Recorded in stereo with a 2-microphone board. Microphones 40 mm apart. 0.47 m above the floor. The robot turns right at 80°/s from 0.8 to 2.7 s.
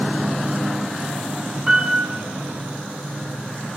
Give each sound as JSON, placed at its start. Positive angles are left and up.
{"t": 1.7, "sound": "a piano", "azimuth_deg": -160, "distance_m": 2.5}